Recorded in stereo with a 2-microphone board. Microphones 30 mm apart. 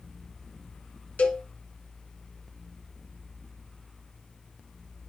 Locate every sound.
1.2 s a cowbell: 55° left (ahead or behind), 1.7 m